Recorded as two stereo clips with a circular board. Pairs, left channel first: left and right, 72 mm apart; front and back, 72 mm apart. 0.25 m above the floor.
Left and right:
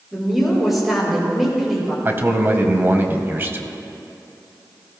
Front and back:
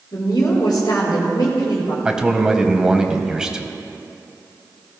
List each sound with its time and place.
0.1 s a woman speaking: 5° right, 4.5 m
2.0 s a man speaking: 110° right, 1.0 m